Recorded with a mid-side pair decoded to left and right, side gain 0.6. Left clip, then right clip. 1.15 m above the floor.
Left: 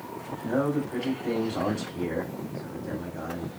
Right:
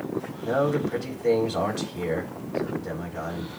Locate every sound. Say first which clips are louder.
0.4 s a man speaking: right 3 dB; 45° right, 3 m